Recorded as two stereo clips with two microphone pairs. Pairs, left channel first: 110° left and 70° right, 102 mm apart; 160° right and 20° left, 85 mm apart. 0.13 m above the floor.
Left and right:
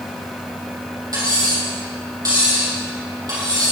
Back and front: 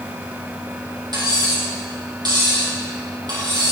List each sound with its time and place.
1.1 s cutlery clinking: 15° right, 3 m